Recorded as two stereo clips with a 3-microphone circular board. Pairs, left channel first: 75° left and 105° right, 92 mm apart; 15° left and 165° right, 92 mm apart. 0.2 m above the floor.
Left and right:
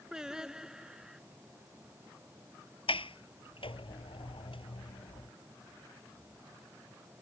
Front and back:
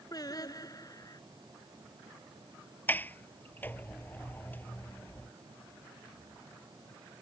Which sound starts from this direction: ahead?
Singing, at 0.1 s.